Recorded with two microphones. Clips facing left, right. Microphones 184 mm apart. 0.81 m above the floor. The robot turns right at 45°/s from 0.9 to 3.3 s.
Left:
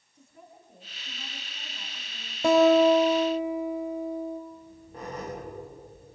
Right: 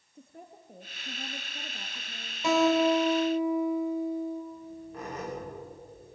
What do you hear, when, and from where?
0.1 s a woman speaking: 95° right, 1.3 m; by 2.3 s 30° right, 1.3 m
2.4 s a guitar: 50° left, 2 m; by 4.4 s 90° left, 2 m
4.5 s a squeak: 30° left (ahead or behind), 9.5 m